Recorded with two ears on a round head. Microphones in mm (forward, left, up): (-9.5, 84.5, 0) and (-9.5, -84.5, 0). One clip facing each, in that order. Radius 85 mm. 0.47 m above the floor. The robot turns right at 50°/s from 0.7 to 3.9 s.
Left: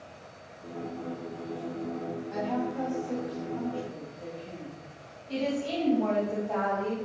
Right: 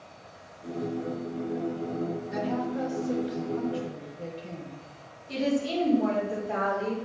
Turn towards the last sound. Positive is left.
turn(degrees=-15)  # may be behind; listen again after turning